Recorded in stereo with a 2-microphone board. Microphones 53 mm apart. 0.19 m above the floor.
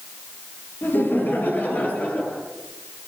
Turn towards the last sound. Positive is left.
turn(degrees=25)  # may be behind; listen again after turning